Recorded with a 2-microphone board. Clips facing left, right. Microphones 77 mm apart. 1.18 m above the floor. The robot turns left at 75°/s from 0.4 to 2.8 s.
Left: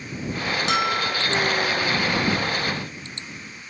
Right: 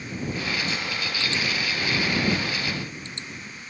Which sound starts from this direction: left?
A bell, at 0.7 s.